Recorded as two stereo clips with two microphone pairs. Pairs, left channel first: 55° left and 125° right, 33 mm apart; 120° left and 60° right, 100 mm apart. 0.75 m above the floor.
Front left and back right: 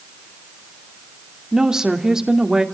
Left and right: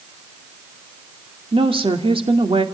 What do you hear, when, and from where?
1.5 s a woman speaking: 55° right, 2.5 m